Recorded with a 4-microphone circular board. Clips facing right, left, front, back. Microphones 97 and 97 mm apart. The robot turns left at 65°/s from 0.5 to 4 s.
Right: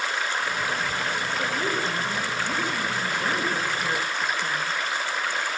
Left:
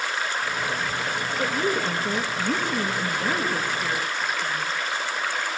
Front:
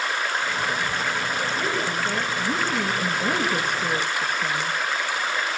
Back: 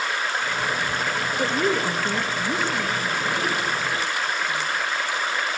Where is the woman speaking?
170° left, 4 m; by 4.7 s straight ahead, 4 m.